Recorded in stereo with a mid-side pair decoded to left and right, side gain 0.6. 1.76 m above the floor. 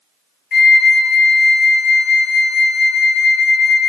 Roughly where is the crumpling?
No crumpling in this recording.